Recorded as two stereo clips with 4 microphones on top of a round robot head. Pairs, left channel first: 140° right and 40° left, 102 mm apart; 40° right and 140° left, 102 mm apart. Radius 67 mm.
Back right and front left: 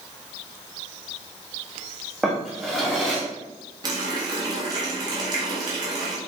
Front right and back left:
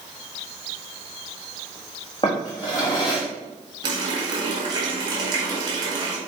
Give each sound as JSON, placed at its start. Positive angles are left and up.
{"t": 2.2, "sound": "a drawer", "azimuth_deg": -50, "distance_m": 1.2}
{"t": 3.8, "sound": "a running tap", "azimuth_deg": 90, "distance_m": 1.5}